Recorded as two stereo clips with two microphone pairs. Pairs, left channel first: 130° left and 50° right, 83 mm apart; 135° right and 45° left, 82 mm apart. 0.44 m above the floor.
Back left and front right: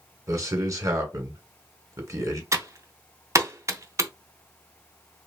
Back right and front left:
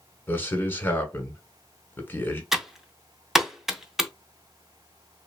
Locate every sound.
0.3 s a man speaking: 85° right, 1.4 m
2.5 s typing on a keyboard: 40° right, 0.6 m